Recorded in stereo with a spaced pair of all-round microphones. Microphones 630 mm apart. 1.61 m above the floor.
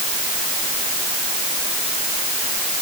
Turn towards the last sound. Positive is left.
No sound to turn to.